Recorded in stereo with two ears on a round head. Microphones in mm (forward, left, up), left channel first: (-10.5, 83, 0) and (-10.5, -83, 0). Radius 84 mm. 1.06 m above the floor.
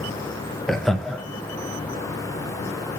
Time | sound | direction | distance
0.7 | laughter | centre (ahead or behind) | 0.5 m